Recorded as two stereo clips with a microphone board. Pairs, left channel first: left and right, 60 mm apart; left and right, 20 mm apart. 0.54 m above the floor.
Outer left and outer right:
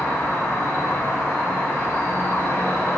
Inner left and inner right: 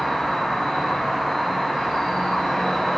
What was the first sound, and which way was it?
An insect, 55° left (ahead or behind).